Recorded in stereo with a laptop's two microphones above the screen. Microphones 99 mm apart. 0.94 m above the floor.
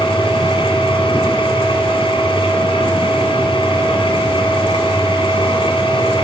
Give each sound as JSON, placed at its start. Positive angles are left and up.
{"t": 0.0, "sound": "a machine running", "side_deg": 65, "distance_m": 2.0}